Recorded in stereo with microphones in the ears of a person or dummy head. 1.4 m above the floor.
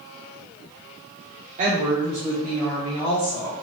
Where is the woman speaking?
40° right (ahead or behind), 0.9 m; by 3.5 s 30° left (ahead or behind), 2 m.